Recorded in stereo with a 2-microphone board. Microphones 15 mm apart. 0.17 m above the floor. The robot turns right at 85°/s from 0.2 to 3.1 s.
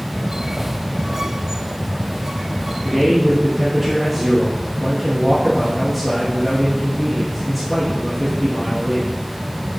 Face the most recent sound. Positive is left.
turn(degrees=-5)  # may be behind; listen again after turning